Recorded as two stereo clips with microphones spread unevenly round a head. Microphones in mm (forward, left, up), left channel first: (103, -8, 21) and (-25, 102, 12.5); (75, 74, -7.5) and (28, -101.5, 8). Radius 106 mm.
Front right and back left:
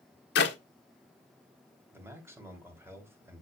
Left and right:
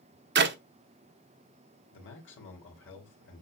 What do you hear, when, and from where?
0.3 s a clap: 85° right, 1.3 m
1.9 s a man speaking: 65° left, 3.5 m